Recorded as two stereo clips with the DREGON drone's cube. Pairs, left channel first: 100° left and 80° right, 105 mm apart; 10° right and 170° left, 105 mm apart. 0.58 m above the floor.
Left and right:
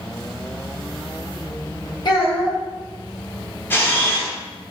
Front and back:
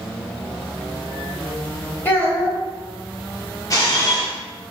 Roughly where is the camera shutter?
Ahead left.